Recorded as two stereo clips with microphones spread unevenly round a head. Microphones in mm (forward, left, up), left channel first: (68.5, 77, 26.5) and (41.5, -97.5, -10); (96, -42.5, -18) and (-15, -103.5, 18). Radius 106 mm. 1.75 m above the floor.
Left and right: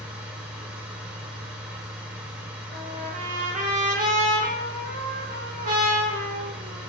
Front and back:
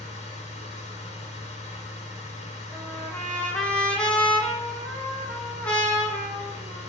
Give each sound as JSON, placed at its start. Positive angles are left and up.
{"t": 0.0, "sound": "a machine running", "azimuth_deg": -10, "distance_m": 1.0}
{"t": 2.7, "sound": "a trumpet", "azimuth_deg": -70, "distance_m": 1.0}